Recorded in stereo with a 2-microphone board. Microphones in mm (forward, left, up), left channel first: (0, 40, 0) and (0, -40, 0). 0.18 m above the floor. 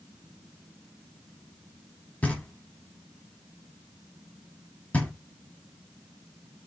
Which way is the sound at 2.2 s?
20° left (ahead or behind).